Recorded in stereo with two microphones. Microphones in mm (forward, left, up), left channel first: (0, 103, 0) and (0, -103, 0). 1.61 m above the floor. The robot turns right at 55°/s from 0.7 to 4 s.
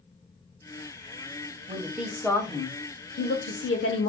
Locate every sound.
1.7 s a woman speaking: 25° right, 0.7 m; by 4.1 s 100° left, 0.7 m